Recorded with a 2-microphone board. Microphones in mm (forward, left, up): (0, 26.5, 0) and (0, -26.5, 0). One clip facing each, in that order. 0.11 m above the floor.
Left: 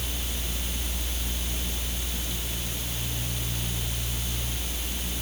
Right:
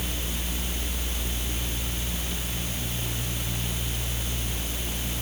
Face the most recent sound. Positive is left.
No sound to turn to.